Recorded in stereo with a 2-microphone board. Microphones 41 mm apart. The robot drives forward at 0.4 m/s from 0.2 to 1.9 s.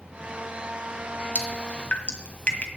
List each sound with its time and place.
1.4 s dripping: 30° left (ahead or behind), 1.4 m